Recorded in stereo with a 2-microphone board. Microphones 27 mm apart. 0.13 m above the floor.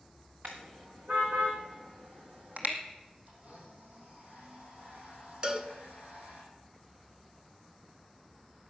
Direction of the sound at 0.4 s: 85° right.